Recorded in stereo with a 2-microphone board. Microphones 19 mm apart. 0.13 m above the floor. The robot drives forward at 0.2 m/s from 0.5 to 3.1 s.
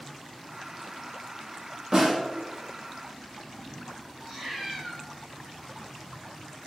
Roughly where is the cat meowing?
Right.